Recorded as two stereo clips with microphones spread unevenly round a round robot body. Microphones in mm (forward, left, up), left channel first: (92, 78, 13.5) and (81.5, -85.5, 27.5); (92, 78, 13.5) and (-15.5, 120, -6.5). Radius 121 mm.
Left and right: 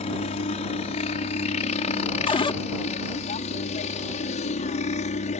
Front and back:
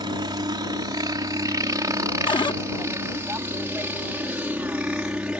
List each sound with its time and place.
0.0 s a helicopter: 130° left; by 5.4 s 85° left
2.3 s a cupboard door: 30° left